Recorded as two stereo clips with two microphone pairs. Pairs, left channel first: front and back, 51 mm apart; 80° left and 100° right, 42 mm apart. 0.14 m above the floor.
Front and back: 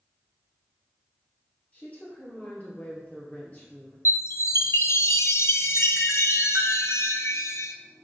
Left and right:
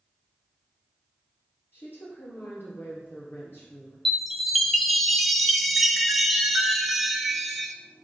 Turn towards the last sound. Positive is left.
turn(degrees=-10)